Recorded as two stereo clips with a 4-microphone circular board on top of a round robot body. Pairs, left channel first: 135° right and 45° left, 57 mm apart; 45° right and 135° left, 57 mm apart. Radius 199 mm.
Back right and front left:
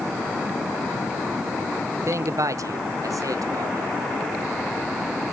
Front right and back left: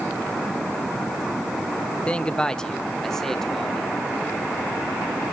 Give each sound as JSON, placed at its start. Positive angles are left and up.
{"t": 2.1, "sound": "a man speaking", "azimuth_deg": 25, "distance_m": 0.9}